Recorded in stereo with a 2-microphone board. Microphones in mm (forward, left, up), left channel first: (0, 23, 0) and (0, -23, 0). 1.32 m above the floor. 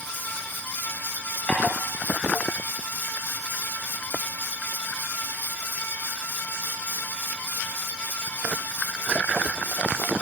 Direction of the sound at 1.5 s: 25° left (ahead or behind).